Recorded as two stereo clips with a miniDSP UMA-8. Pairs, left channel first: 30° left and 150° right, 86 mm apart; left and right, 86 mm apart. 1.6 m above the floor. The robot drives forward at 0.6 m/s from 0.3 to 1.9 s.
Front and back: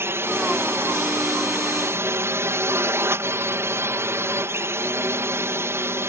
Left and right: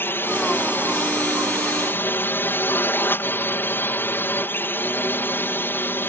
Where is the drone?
150° left; by 6.1 s 155° left.